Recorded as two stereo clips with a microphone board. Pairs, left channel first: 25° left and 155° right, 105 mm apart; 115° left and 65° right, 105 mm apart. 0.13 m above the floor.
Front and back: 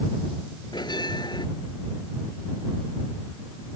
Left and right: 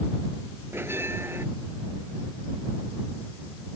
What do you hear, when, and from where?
0.7 s a bell: 5° right